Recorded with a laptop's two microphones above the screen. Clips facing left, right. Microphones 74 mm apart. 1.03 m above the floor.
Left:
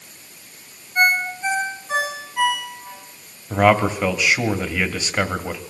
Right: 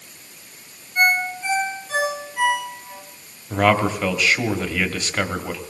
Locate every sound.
0.9 s a ringtone: 20° left (ahead or behind), 6 m
3.5 s a man speaking: 10° left (ahead or behind), 1.9 m